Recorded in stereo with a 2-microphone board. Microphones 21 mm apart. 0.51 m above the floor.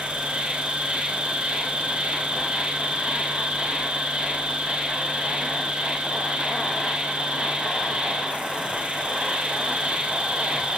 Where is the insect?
65° right (ahead or behind), 4 m.